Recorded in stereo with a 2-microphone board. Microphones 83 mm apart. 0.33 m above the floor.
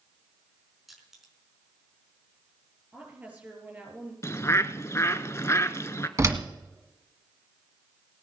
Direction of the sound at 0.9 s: 5° right (ahead or behind).